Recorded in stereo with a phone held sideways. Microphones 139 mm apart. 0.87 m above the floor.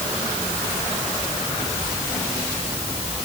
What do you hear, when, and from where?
Only background noise.